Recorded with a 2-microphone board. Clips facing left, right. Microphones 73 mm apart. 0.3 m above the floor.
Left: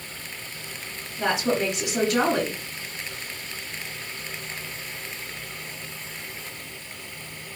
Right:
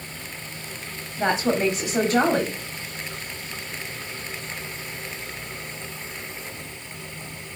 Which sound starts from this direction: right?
A woman speaking, at 1.2 s.